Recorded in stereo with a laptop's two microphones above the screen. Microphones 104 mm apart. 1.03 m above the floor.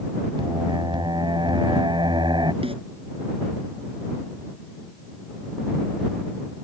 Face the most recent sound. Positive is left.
turn(degrees=-65)  # may be behind; listen again after turning